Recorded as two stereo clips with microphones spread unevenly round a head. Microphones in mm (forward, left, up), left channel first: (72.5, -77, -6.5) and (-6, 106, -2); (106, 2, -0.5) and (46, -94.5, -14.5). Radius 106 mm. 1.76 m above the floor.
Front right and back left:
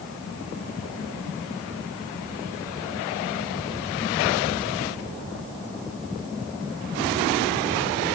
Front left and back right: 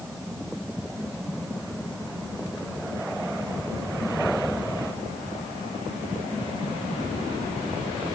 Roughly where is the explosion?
No explosion in this recording.